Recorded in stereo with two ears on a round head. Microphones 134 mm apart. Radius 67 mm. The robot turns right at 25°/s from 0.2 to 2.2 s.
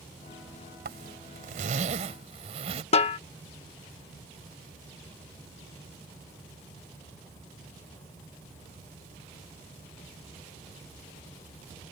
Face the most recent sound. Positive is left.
turn(degrees=40)  # may be behind; listen again after turning